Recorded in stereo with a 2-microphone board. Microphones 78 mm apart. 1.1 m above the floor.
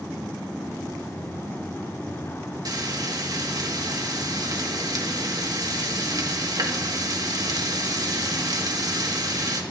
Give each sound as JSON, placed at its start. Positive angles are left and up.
{"t": 2.6, "sound": "frying", "side_deg": -55, "distance_m": 1.6}